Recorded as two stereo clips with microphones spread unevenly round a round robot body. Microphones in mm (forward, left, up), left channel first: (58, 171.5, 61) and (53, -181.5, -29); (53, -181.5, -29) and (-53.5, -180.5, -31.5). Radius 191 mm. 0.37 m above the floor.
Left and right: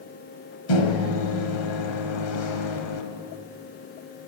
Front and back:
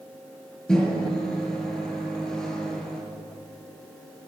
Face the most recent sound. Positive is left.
turn(degrees=85)